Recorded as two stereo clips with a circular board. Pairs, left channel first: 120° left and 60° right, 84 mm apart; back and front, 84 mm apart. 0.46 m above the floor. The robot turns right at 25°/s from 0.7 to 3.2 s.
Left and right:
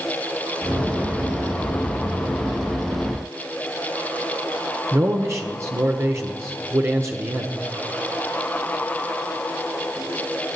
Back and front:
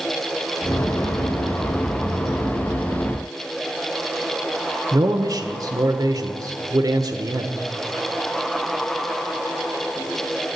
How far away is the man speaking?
About 1.1 m.